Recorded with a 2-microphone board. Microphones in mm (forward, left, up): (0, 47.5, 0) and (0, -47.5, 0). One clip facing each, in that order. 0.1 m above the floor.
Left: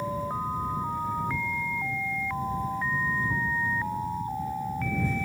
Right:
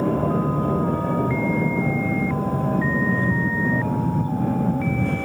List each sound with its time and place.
0.0 s an aircraft: 70° right (ahead or behind)